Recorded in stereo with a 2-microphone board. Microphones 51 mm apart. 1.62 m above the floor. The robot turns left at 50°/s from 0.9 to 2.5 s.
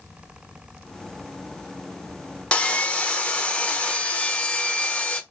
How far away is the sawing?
About 0.8 m.